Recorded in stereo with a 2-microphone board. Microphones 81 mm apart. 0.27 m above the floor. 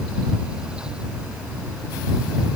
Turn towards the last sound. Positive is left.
No sound to turn to.